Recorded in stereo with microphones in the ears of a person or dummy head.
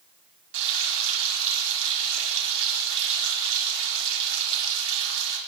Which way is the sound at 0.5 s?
70° right (ahead or behind).